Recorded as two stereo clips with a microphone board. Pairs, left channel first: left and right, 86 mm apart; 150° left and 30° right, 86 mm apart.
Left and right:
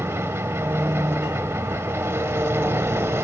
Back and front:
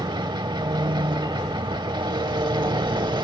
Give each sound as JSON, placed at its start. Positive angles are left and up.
{"t": 0.0, "sound": "an engine running", "azimuth_deg": -35, "distance_m": 0.8}